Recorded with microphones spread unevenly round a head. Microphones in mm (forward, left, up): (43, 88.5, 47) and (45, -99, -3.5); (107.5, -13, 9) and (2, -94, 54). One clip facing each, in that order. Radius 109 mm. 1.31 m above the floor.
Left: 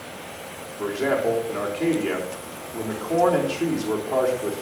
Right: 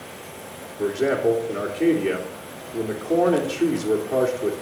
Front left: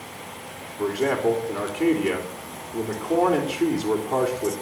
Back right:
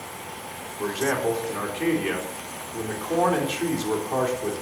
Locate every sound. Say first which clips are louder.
0.8 s a man speaking: right 2 dB, front left 3 dB; 15° right, 3.5 m